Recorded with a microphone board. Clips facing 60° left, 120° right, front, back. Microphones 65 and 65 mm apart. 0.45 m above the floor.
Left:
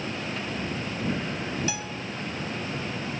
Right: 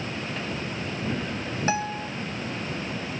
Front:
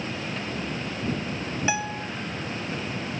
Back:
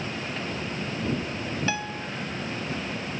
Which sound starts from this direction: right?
A guitar, at 1.7 s.